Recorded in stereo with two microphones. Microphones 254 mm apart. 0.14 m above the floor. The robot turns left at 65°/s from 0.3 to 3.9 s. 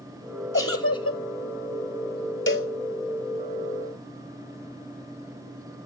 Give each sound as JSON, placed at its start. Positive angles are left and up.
{"t": 0.5, "sound": "a giggle", "azimuth_deg": 120, "distance_m": 0.7}
{"t": 2.5, "sound": "a cowbell", "side_deg": 55, "distance_m": 0.8}